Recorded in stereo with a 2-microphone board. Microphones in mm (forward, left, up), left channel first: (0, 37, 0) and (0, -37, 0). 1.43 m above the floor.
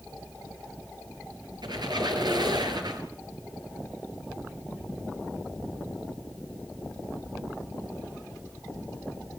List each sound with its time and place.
1.6 s a squeak: 75° right (ahead or behind), 5 m